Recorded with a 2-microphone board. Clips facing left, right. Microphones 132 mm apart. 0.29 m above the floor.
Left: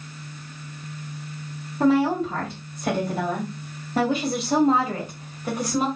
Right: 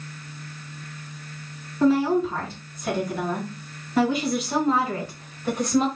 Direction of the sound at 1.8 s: 50° left (ahead or behind).